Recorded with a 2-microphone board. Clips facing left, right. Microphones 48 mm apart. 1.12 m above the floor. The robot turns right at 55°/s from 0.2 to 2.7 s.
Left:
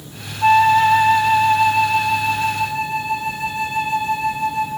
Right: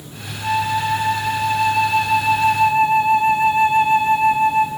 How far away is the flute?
About 0.6 m.